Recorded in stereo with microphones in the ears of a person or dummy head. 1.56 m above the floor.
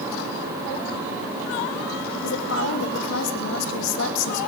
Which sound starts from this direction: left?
A woman speaking, at 2.2 s.